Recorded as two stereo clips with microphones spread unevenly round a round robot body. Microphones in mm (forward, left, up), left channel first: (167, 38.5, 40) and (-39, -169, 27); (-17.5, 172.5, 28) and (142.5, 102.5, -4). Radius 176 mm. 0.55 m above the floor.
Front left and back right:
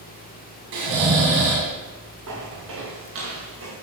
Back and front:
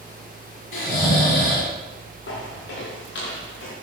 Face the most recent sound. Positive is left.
turn(degrees=170)